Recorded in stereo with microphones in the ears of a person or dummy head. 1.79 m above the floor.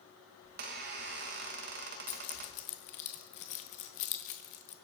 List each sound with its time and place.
0.4 s a squeak: 45° right (ahead or behind), 1.2 m
2.1 s keys jangling: 35° left (ahead or behind), 1.1 m